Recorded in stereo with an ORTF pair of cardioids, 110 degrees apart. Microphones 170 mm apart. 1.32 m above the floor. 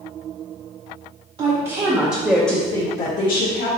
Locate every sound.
1.4 s a woman speaking: 40° right, 1.8 m; by 3.7 s 65° left, 1.5 m